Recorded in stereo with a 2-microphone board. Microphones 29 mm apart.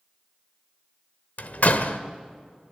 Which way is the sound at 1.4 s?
65° left (ahead or behind).